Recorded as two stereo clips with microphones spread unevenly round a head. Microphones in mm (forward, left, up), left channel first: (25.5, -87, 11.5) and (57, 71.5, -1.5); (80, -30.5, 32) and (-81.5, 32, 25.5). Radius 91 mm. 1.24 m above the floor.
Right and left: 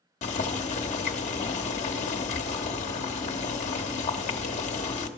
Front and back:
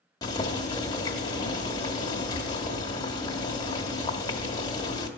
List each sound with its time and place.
0.2 s boiling: 85° right, 0.9 m